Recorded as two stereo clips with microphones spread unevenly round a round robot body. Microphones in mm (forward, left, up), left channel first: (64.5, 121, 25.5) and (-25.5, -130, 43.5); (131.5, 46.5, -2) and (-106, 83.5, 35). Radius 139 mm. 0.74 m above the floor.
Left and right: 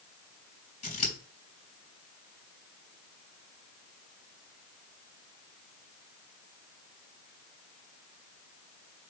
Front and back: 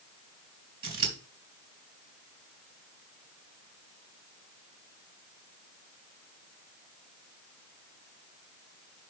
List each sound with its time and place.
0.8 s scissors: 140° left, 3 m